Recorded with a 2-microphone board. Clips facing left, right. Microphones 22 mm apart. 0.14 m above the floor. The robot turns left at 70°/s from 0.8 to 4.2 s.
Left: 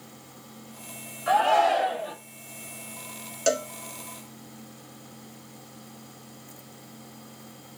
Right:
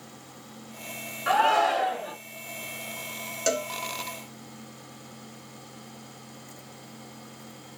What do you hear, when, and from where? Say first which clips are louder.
1.3 s a shout: left 1 dB; 115° right, 1.9 m; by 2.1 s straight behind, 1.9 m
3.5 s a cowbell: left 2 dB; 10° left (ahead or behind), 0.5 m; by 3.7 s 20° left (ahead or behind), 0.5 m